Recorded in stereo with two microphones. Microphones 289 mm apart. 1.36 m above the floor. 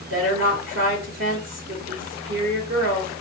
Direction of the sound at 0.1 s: 55° right (ahead or behind).